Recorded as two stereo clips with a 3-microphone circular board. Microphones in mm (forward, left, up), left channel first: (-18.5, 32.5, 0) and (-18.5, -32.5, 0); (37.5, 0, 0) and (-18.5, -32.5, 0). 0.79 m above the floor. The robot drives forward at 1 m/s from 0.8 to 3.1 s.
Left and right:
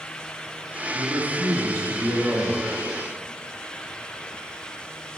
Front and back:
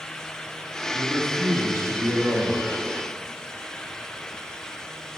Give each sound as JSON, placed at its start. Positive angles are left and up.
{"t": 0.9, "sound": "a man speaking", "azimuth_deg": -85, "distance_m": 1.1}